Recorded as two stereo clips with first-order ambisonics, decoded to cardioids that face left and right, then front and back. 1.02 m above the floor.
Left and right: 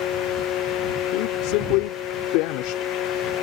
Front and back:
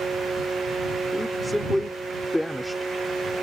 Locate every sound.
1.1 s a woman speaking: 90° left